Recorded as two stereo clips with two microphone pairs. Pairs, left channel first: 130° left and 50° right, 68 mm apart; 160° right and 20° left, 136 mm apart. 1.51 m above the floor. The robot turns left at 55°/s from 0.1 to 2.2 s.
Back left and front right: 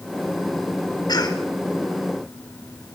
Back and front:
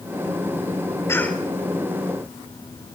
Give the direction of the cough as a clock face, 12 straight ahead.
8 o'clock.